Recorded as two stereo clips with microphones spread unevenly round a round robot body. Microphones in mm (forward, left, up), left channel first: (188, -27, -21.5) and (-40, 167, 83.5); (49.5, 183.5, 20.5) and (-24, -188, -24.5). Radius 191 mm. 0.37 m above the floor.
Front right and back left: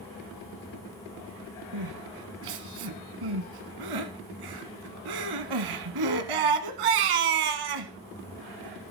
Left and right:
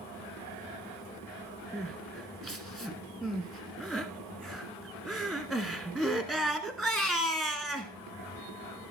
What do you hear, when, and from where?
1.7 s crying: 170° left, 1.1 m